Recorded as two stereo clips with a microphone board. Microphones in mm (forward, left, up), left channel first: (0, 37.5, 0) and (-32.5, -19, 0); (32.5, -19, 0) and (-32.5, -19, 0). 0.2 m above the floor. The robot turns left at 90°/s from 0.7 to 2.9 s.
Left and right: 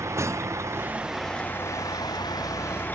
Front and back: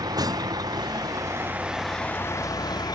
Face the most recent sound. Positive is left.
turn(degrees=-5)